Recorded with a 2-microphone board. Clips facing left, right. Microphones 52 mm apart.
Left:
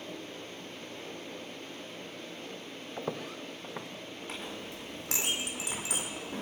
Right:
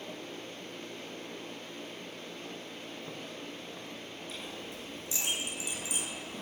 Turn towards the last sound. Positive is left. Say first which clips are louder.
# left 2 dB
turn(degrees=80)